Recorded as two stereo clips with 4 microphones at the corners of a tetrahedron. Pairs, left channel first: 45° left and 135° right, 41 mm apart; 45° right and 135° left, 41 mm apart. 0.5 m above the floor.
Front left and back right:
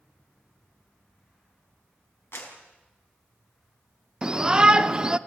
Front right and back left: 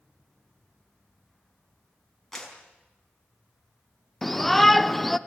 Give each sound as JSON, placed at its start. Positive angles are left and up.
{"t": 2.3, "sound": "a clap", "azimuth_deg": 35, "distance_m": 4.5}
{"t": 4.2, "sound": "a shout", "azimuth_deg": -125, "distance_m": 0.8}